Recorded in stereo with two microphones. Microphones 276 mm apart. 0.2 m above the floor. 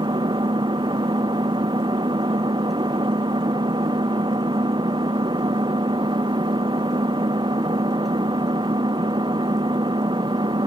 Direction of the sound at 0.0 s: 15° right (ahead or behind).